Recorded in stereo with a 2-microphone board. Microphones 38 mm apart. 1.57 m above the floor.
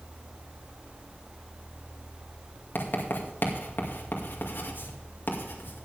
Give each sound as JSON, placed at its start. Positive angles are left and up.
{"t": 2.8, "sound": "writing", "side_deg": 65, "distance_m": 2.5}